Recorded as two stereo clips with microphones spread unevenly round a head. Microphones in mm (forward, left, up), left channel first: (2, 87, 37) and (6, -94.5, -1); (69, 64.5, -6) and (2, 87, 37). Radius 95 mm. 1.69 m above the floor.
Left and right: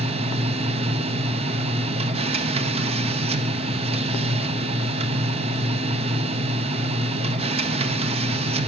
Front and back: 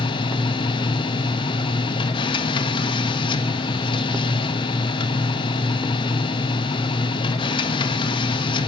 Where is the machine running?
30° right, 0.9 m.